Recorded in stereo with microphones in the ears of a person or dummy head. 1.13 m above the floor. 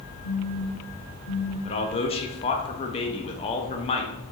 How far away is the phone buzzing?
About 1.0 m.